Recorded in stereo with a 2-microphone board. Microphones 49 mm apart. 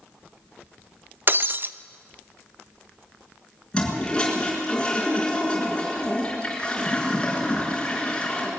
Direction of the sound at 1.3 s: 45° right (ahead or behind).